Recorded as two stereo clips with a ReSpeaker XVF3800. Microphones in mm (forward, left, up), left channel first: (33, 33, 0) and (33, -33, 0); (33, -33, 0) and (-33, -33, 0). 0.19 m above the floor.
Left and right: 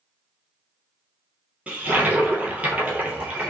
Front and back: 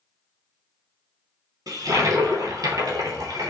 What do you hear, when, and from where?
1.7 s a toilet flushing: 160° right, 0.7 m